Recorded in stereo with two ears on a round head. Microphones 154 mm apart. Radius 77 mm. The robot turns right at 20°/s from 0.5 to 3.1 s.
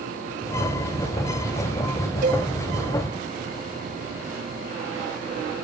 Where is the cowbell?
50° right (ahead or behind), 5.5 m; by 2.5 s 45° right (ahead or behind), 5.5 m.